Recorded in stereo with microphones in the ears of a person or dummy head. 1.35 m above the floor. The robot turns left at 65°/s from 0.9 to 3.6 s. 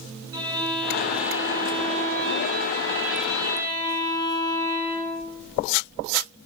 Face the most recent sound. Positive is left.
turn(degrees=160)